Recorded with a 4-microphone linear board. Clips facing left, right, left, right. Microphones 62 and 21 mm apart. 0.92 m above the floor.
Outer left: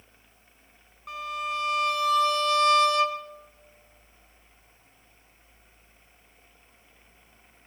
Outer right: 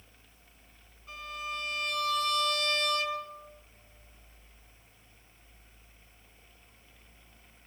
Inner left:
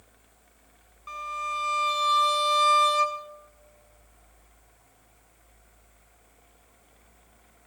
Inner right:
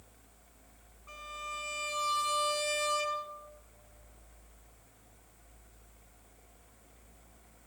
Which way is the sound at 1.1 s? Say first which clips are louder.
Outer left 7 dB, inner left 10 dB; 80° left.